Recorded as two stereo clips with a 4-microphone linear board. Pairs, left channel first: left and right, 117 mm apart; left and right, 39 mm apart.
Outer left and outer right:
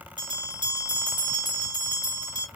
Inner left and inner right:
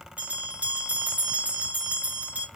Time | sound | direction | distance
0.2 | a bell | 40° right (ahead or behind) | 2 m